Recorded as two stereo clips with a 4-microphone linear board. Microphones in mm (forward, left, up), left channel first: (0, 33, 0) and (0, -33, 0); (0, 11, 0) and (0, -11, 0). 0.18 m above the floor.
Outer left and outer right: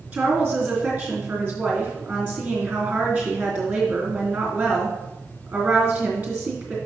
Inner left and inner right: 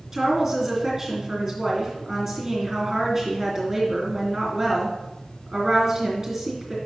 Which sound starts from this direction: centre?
A woman speaking, at 0.1 s.